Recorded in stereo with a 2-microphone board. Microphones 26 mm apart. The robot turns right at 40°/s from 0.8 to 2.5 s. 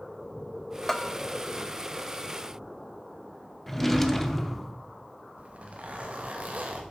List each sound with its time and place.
0.9 s a bell: 15° left (ahead or behind), 0.5 m; by 1.1 s 25° left (ahead or behind), 0.5 m
3.7 s a drawer: 5° left (ahead or behind), 0.8 m
5.4 s a zipper: 65° right (ahead or behind), 1.6 m